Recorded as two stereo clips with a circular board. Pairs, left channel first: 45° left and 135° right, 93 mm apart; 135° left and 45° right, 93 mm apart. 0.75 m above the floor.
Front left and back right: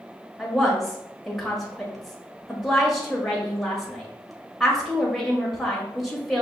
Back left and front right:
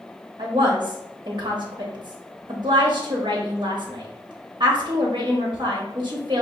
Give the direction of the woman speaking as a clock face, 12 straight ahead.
1 o'clock.